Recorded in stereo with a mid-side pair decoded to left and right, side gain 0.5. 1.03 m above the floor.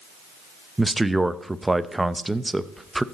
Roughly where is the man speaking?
Ahead.